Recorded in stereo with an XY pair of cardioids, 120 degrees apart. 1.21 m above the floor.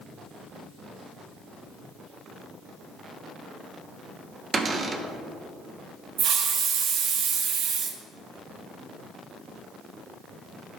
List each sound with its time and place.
4.5 s a cupboard door: 35° right, 0.9 m
6.2 s a hiss: 60° right, 0.9 m